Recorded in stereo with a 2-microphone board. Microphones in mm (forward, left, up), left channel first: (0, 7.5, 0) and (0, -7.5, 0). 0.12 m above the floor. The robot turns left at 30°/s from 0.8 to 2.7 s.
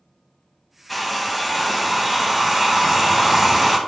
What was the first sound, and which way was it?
A hair dryer, straight ahead.